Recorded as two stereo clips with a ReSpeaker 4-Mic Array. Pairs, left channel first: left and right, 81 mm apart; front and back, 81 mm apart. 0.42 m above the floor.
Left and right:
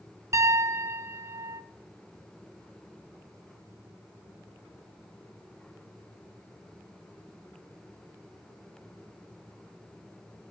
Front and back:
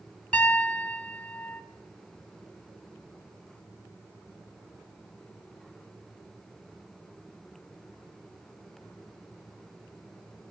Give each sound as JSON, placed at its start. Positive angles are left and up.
{"t": 0.3, "sound": "a piano", "azimuth_deg": -65, "distance_m": 0.6}